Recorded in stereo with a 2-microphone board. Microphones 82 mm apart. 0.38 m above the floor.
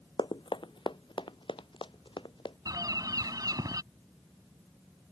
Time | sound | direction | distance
0.2 | running footsteps | 70° left (ahead or behind) | ?
2.6 | a bird | 50° right (ahead or behind) | ?